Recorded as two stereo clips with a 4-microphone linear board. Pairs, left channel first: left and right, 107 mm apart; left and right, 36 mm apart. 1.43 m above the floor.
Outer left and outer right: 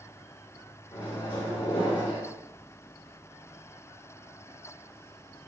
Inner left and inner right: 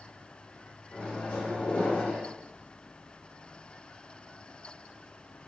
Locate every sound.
0.9 s a microwave: 50° left (ahead or behind), 1.3 m